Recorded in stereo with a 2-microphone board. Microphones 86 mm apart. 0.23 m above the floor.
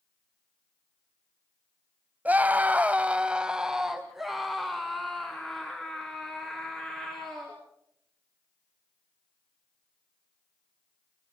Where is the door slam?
No door slam in this recording.